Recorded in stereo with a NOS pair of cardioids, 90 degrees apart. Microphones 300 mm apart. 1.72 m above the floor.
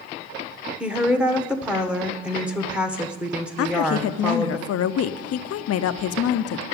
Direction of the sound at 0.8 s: 5° right.